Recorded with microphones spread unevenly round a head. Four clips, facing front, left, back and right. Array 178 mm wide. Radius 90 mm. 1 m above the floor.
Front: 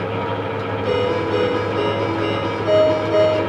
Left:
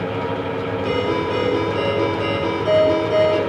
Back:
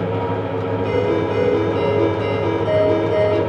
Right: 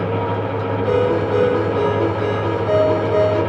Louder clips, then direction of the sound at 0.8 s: Right 5 dB, even; 135° left.